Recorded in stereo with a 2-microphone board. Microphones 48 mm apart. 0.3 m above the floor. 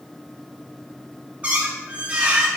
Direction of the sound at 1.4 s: 30° right (ahead or behind).